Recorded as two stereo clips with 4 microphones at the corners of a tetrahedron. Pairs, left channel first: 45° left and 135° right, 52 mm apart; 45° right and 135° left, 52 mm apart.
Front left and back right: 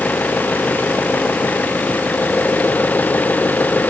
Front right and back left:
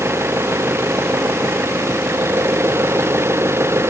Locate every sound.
0.0 s an engine running: 100° left